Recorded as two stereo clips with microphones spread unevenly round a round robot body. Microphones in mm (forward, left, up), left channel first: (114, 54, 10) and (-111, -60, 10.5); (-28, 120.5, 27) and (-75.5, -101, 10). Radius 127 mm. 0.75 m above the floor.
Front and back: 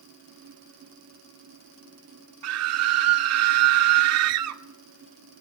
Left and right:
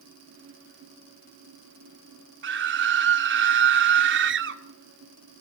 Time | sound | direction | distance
2.4 | a scream | 130° right | 2 m